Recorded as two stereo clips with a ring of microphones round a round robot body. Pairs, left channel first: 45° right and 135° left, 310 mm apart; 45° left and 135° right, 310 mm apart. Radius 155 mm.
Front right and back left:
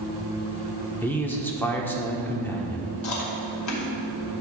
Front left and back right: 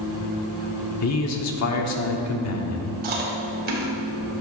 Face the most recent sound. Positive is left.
turn(degrees=-75)